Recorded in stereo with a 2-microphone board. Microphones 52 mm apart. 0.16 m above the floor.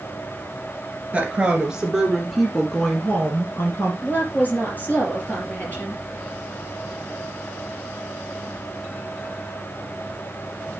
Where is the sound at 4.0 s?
35° left (ahead or behind), 3.5 m.